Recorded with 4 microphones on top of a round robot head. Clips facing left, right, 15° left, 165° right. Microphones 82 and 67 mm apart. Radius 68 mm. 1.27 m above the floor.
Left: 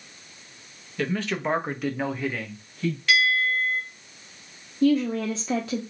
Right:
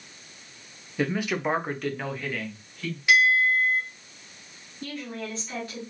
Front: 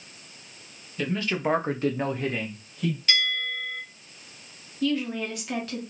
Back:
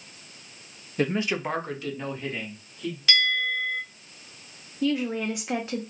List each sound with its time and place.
1.0 s a man speaking: 155° right, 0.6 m; by 3.0 s 15° left, 1.3 m
3.1 s a bell: 170° right, 0.7 m
4.8 s a woman speaking: 125° left, 0.5 m